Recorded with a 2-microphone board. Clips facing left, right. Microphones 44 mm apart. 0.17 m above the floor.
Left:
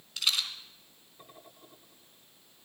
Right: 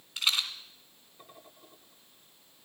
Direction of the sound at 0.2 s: 30° right (ahead or behind).